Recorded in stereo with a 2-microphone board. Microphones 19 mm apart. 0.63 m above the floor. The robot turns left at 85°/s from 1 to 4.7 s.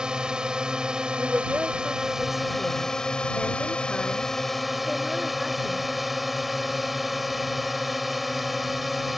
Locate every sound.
0.0 s a drone: 60° right; by 9.2 s 10° right
1.2 s a woman speaking: 70° right; by 5.9 s 10° right